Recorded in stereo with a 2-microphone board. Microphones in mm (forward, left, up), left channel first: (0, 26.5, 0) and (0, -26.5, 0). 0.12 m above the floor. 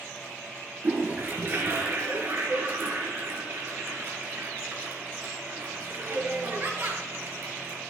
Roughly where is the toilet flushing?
Right.